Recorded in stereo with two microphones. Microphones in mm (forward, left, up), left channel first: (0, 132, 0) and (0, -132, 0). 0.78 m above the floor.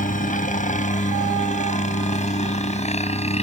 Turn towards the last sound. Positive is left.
turn(degrees=25)  # may be behind; listen again after turning